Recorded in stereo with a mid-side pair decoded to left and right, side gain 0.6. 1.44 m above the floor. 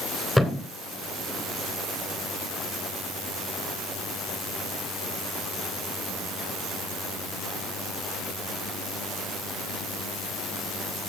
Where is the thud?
Straight ahead, 3 m.